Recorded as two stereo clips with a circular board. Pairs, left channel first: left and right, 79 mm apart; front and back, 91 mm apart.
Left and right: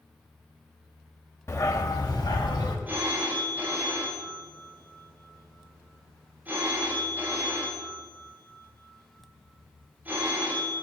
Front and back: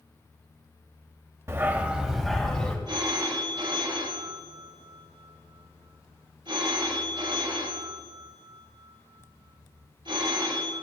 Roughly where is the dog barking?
Behind left.